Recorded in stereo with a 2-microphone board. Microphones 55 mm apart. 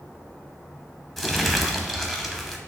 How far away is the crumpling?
About 0.6 m.